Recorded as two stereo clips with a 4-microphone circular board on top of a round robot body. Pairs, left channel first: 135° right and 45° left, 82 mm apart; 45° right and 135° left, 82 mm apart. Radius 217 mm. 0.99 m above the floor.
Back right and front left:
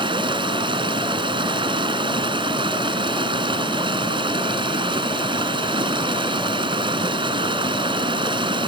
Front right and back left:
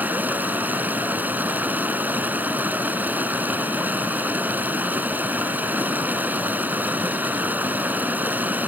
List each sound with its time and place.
0.0 s running water: 65° left